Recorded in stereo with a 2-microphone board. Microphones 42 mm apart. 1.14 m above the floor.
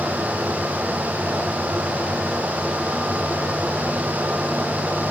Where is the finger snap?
I don't hear a finger snap.